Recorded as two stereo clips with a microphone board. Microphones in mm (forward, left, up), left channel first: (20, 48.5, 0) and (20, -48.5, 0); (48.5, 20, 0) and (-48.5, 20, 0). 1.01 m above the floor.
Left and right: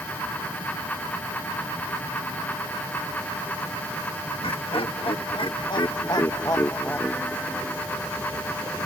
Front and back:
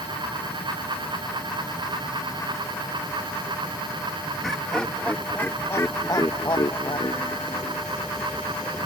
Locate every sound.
4.4 s laughter: 85° left; by 7.8 s 5° left